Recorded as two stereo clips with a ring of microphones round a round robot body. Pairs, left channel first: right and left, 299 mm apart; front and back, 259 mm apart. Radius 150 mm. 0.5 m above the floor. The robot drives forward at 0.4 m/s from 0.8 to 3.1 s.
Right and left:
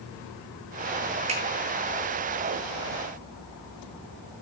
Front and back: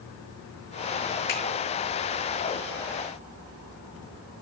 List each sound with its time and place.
1.3 s a finger snap: 20° left, 6.5 m